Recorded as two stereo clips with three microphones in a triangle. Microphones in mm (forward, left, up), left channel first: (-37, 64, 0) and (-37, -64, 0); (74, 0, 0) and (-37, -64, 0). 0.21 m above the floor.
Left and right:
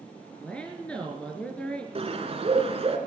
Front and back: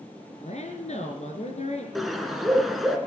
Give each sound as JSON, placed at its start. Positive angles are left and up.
{"t": 0.4, "sound": "a woman speaking", "azimuth_deg": 10, "distance_m": 3.0}
{"t": 1.9, "sound": "a bird", "azimuth_deg": -60, "distance_m": 2.0}